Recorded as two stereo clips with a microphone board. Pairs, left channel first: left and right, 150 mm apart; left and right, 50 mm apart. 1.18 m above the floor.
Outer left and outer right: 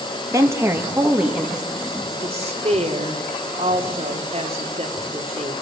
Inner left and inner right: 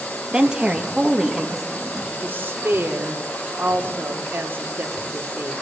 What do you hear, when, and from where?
0.3 s a woman speaking: 20° right (ahead or behind), 1.9 m; by 2.1 s centre (ahead or behind), 3 m
2.2 s a woman speaking: 40° right (ahead or behind), 3 m